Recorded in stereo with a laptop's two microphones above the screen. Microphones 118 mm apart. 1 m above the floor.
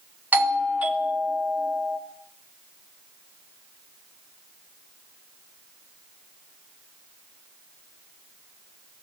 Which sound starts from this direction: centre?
A doorbell, at 0.3 s.